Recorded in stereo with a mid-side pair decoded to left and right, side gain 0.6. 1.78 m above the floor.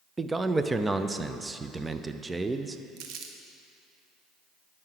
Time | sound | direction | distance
0.2 | a man speaking | 15° right | 0.6 m
3.0 | crumpling | 70° right | 1.0 m